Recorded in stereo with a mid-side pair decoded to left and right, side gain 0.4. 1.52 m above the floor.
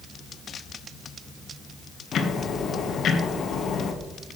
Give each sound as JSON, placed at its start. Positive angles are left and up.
{"t": 2.1, "sound": "ticking", "azimuth_deg": 65, "distance_m": 1.4}